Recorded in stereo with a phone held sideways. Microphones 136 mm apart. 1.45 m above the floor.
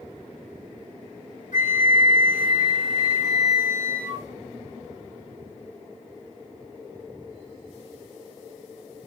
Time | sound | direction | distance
1.5 | a flute | 75° left (ahead or behind) | 1.4 m